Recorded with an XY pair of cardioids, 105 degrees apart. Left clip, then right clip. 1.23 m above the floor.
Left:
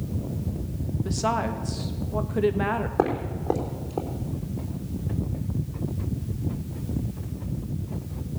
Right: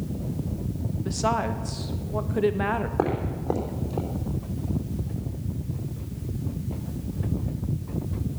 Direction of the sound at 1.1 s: 5° right.